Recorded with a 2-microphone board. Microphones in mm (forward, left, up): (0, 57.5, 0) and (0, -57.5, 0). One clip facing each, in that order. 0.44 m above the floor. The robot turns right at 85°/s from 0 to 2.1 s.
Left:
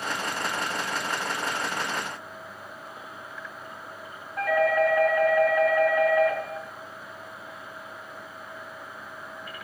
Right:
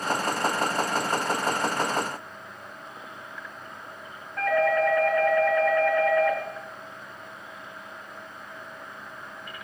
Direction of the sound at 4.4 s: 10° left (ahead or behind).